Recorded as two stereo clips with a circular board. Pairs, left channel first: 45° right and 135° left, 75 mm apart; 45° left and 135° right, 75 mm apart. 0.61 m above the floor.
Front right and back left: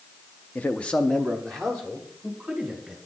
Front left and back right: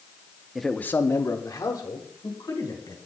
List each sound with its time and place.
0.6 s a man speaking: 60° right, 0.5 m; by 3.0 s 45° left, 2.5 m